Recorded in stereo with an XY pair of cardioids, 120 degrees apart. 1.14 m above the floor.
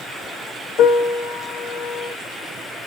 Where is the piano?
60° left, 0.8 m.